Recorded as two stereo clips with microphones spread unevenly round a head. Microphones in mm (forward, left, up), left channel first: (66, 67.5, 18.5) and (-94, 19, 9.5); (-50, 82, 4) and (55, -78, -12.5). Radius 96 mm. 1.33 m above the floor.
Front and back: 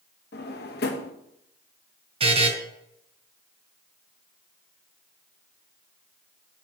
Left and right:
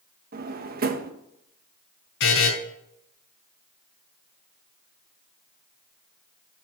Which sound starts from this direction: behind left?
A buzzer, at 2.2 s.